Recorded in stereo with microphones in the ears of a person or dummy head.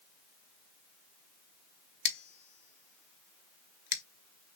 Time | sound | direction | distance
2.0 | scissors | 65° left (ahead or behind) | 0.7 m